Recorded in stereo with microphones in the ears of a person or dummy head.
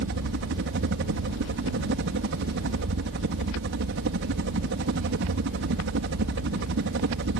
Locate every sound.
0.0 s a helicopter: 65° right (ahead or behind)